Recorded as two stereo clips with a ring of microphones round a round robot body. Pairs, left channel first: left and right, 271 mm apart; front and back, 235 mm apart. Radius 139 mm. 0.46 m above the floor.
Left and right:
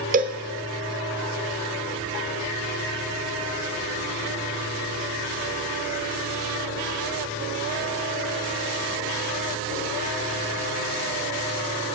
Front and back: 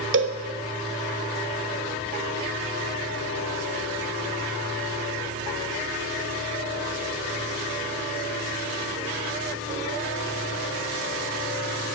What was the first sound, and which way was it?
A cowbell, 145° right.